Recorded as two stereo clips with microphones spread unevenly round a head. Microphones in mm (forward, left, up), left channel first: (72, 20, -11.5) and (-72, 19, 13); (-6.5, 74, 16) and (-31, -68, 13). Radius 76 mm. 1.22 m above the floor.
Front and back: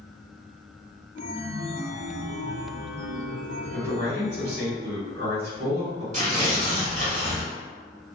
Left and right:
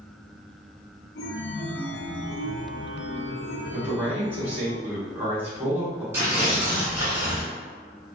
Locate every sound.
1.1 s a chime: 55° left, 0.5 m
3.7 s a man speaking: 175° right, 1.3 m
6.1 s tearing paper: 170° right, 1.5 m